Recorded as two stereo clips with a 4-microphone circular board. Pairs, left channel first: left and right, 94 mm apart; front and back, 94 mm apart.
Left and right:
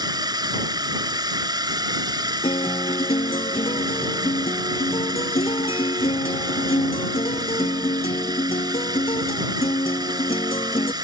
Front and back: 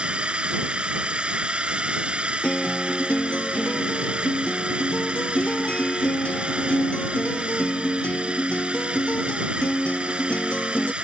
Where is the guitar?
75° left.